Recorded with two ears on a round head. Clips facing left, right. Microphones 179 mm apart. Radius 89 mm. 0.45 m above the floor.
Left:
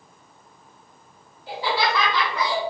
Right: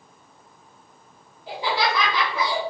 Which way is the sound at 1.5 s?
20° right (ahead or behind).